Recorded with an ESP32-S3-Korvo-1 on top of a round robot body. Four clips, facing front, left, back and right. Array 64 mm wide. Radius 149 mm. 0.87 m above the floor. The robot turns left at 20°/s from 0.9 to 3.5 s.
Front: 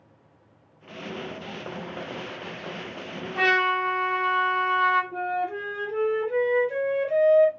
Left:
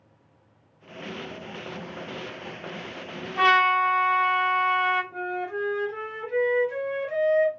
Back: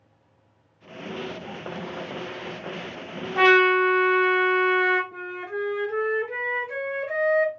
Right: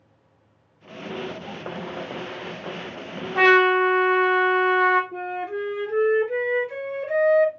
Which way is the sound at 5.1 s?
160° right.